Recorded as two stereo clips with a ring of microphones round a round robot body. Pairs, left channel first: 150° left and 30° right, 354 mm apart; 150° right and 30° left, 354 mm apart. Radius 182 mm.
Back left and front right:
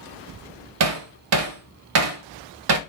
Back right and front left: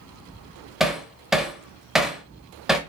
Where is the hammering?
60° right, 0.6 m.